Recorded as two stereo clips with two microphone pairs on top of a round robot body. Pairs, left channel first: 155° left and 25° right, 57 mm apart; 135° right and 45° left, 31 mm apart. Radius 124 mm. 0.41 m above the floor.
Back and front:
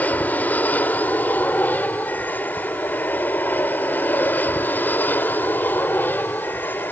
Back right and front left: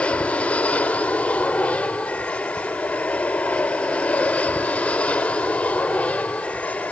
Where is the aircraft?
145° right; by 6.9 s 150° right.